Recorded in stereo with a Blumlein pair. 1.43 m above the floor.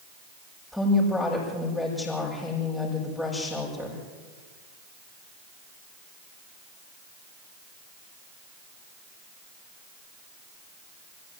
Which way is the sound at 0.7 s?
Straight ahead.